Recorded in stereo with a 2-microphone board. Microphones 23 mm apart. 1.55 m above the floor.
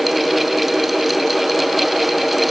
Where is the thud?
No thud in this recording.